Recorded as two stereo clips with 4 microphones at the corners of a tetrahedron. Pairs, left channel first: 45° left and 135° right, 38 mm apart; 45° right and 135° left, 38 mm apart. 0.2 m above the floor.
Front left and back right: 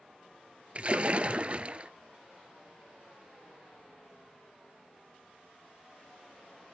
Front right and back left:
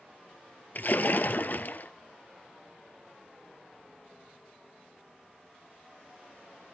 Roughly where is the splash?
Right.